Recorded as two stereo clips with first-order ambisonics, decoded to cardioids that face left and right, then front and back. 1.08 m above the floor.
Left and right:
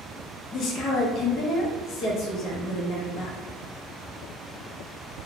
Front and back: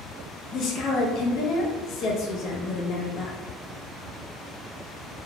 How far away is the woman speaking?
About 0.6 m.